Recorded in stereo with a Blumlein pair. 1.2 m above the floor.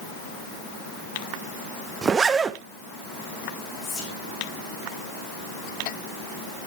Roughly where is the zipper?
Ahead.